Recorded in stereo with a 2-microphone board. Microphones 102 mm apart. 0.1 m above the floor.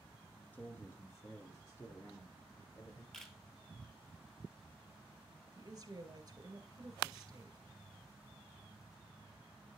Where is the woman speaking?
40° right (ahead or behind), 1.6 m.